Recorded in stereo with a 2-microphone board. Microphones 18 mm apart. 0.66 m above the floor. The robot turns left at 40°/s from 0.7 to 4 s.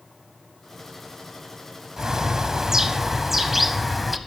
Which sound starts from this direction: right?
A bird, at 2.0 s.